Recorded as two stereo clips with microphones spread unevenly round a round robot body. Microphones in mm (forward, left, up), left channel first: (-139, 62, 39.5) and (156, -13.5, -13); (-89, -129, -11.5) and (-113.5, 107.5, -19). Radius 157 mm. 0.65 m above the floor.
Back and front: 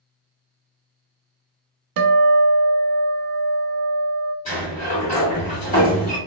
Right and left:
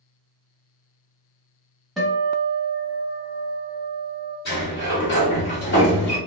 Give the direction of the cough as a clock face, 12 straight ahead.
No cough in this recording.